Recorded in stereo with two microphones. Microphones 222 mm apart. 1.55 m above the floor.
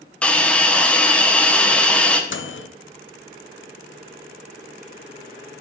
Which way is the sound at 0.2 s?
5° left (ahead or behind).